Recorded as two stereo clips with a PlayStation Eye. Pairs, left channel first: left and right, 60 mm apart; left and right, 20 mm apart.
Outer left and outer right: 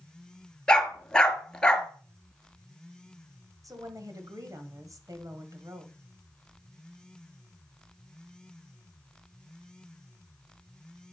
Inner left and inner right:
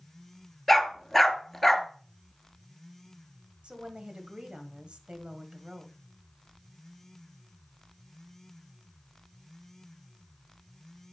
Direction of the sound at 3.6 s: 60° right (ahead or behind).